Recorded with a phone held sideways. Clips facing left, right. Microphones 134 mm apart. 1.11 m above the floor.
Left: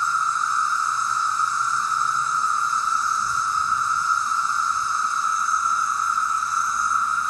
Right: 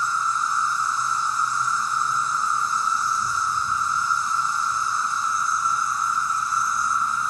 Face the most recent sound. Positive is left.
turn(degrees=-10)  # may be behind; listen again after turning